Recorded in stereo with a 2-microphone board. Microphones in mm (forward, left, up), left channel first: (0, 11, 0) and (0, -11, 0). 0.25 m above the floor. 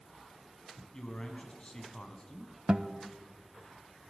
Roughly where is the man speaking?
Left.